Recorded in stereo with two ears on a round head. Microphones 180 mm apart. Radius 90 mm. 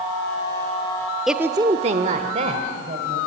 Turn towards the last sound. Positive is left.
turn(degrees=-35)  # may be behind; listen again after turning